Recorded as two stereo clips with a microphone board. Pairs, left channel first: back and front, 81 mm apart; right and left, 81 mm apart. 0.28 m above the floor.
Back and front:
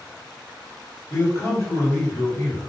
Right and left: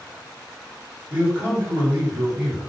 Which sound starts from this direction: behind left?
A man speaking, at 1.1 s.